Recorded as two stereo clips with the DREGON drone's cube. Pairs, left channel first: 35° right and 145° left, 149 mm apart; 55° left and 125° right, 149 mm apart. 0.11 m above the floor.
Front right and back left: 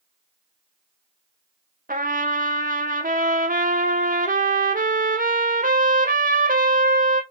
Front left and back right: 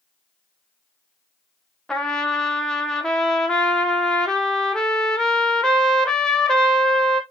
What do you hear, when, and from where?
1.9 s a trumpet: 140° left, 0.6 m